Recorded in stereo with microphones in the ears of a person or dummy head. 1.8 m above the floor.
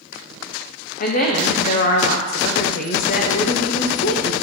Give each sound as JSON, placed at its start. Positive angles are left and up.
{"t": 1.0, "sound": "a woman speaking", "side_deg": 55, "distance_m": 0.7}